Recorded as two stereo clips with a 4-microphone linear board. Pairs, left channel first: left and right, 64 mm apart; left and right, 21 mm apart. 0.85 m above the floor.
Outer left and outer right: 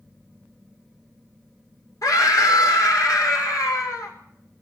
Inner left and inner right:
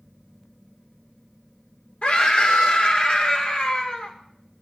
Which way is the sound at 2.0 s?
65° left (ahead or behind).